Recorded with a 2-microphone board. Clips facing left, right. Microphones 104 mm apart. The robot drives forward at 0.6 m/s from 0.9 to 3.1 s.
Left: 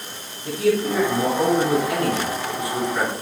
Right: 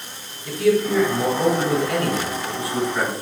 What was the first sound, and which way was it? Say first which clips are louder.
A man speaking: right 2 dB; 30° left (ahead or behind).